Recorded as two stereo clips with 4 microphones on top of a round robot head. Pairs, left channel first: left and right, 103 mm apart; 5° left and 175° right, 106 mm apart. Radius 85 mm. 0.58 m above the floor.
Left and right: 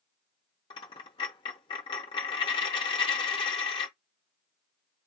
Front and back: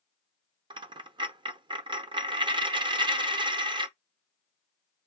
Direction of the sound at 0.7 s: 140° left.